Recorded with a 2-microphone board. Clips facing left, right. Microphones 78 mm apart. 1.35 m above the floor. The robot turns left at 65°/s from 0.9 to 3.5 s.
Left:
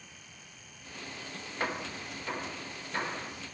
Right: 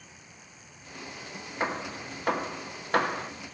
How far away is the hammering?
About 0.6 m.